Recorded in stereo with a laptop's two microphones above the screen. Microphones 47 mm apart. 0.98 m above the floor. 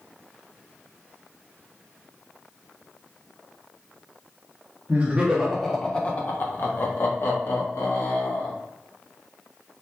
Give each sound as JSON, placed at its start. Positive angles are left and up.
{"t": 4.9, "sound": "laughter", "side_deg": -35, "distance_m": 0.7}